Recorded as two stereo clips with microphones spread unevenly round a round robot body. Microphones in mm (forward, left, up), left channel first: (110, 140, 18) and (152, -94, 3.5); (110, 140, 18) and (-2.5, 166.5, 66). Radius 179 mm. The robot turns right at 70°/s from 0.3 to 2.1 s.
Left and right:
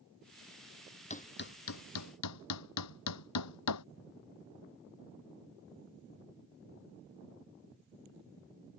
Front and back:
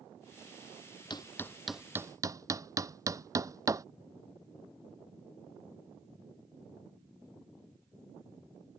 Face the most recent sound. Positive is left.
turn(degrees=110)